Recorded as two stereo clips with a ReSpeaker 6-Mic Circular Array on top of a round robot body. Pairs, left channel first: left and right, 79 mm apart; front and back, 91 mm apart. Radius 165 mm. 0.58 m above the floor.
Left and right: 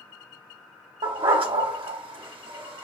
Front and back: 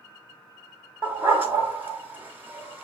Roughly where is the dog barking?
Right.